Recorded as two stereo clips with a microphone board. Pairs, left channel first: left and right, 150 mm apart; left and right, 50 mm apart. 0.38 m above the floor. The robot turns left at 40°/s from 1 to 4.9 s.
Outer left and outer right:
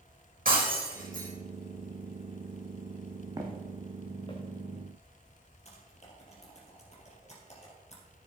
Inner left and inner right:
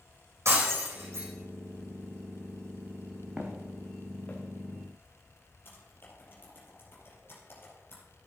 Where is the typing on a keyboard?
45° left (ahead or behind), 4 m.